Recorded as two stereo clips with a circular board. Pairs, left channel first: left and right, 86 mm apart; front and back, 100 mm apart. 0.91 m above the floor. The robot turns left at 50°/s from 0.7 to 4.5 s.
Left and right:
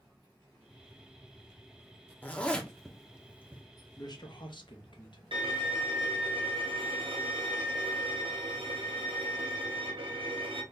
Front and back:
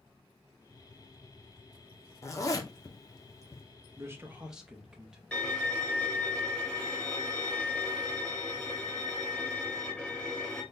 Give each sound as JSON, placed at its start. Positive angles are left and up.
{"t": 2.2, "sound": "a zipper", "azimuth_deg": 35, "distance_m": 0.6}
{"t": 4.0, "sound": "a man speaking", "azimuth_deg": 125, "distance_m": 0.8}
{"t": 5.3, "sound": "a violin", "azimuth_deg": -80, "distance_m": 0.7}